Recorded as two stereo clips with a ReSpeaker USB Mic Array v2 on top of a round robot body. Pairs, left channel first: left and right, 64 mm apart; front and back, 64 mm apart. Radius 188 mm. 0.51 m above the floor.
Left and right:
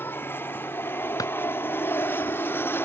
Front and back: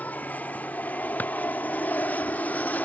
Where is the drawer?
65° left.